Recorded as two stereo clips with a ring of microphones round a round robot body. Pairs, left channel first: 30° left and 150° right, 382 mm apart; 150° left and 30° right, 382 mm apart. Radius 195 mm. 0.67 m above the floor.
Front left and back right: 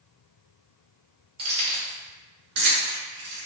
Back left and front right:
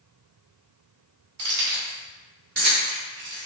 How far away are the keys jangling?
About 1.3 m.